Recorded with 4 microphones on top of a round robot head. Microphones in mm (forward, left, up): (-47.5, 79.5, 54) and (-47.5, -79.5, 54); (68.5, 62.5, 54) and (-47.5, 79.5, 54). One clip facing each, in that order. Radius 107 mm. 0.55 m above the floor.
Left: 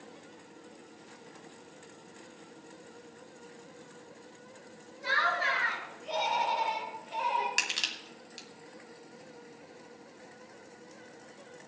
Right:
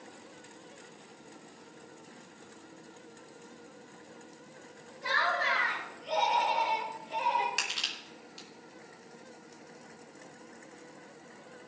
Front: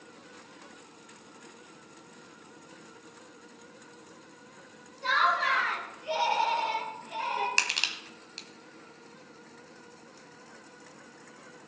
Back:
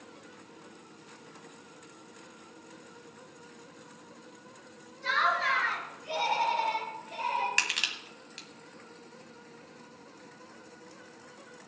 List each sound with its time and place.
5.0 s laughter: 10° left, 6.5 m; by 7.5 s straight ahead, 9 m
7.6 s crushing: 50° left, 1.6 m